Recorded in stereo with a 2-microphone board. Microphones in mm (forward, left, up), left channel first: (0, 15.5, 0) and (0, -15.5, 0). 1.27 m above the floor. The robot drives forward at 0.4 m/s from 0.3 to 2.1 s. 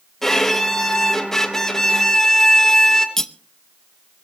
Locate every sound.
0.2 s a violin: 15° left (ahead or behind), 2.5 m; by 3.1 s 20° left (ahead or behind), 1.8 m
3.2 s cutlery clinking: 15° left (ahead or behind), 0.7 m